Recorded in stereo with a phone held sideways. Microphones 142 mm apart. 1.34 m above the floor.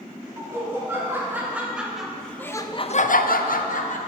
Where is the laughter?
20° right (ahead or behind), 3 m; by 4.0 s 60° left (ahead or behind), 1.3 m.